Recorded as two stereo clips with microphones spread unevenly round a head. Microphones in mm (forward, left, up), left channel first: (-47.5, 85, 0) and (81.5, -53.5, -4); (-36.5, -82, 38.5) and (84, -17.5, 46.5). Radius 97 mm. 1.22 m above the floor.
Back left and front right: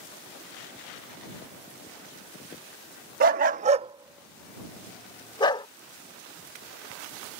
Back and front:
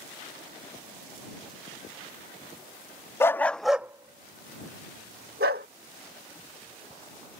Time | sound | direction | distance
3.2 | a dog barking | 80° right | ?